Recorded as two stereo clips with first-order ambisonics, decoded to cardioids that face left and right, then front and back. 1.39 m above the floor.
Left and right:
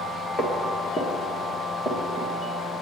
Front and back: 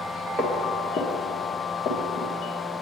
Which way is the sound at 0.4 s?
90° left.